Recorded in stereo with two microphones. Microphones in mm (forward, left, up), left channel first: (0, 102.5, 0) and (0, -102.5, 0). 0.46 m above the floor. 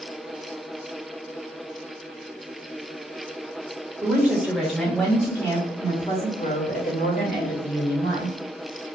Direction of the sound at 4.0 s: 10° right (ahead or behind).